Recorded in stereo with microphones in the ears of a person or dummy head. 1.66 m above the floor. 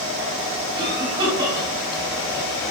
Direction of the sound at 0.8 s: 20° right (ahead or behind).